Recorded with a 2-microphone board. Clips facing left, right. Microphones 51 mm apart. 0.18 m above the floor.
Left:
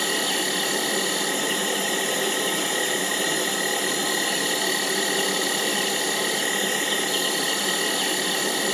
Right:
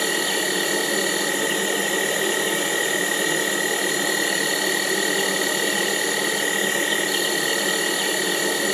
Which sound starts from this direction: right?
An insect, at 0.0 s.